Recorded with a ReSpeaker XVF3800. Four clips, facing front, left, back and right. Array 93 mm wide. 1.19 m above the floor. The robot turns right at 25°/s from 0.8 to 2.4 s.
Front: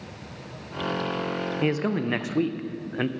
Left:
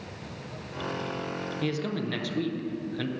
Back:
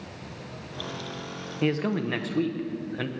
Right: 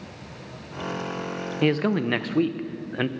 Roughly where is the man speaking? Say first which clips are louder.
Right 10 dB, back 1 dB; right.